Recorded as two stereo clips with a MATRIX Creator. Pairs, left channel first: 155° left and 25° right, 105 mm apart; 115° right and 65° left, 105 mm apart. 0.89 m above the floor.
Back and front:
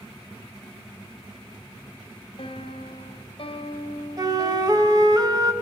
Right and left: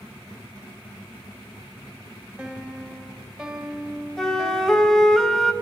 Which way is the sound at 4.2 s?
30° right.